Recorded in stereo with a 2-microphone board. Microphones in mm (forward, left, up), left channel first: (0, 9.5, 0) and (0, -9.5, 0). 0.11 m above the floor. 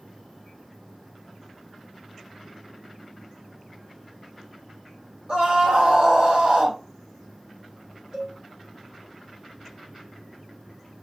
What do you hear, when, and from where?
5.3 s a scream: 70° right (ahead or behind), 3 m; by 6.8 s 55° right (ahead or behind), 1.9 m
8.1 s a cowbell: 55° right (ahead or behind), 4 m